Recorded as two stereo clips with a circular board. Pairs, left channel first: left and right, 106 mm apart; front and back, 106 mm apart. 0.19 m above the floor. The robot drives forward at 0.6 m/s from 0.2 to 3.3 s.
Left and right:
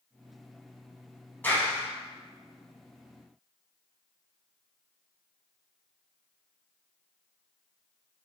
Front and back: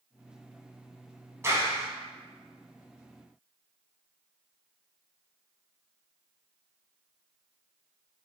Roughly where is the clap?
Behind left.